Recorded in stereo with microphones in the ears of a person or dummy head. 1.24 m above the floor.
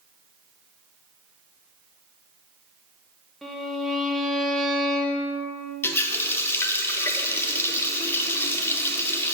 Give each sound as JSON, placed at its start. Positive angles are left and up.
{"t": 3.4, "sound": "a violin", "side_deg": 0, "distance_m": 1.0}
{"t": 5.8, "sound": "a running tap", "side_deg": 15, "distance_m": 0.7}